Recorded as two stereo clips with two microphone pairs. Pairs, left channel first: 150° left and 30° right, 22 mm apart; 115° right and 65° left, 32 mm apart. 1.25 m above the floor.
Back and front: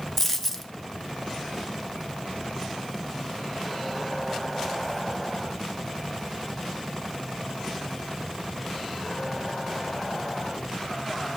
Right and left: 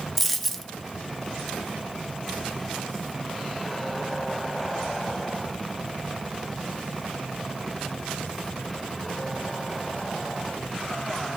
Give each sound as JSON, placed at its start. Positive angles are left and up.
{"t": 0.2, "sound": "a dropped coin", "azimuth_deg": 160, "distance_m": 0.6}